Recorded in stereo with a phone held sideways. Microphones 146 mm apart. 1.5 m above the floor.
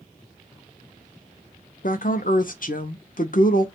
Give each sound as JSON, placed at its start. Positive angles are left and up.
{"t": 1.8, "sound": "a woman speaking", "side_deg": 65, "distance_m": 0.7}